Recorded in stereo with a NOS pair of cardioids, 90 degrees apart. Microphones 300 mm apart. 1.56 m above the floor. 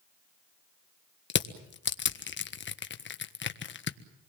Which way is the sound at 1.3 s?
40° left.